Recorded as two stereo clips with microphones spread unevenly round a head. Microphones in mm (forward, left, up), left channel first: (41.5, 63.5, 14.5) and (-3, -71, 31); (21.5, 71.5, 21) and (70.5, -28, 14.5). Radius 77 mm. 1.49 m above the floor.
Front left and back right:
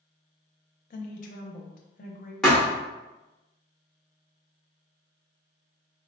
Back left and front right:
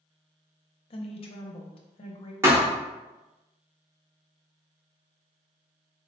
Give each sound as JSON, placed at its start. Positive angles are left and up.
{"t": 0.9, "sound": "a woman speaking", "azimuth_deg": 105, "distance_m": 0.5}
{"t": 2.4, "sound": "a thud", "azimuth_deg": -25, "distance_m": 1.1}